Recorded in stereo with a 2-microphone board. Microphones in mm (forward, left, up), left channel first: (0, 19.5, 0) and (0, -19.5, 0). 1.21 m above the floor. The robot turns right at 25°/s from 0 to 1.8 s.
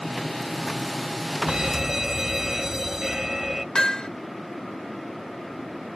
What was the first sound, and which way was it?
A fire alarm, 20° right (ahead or behind).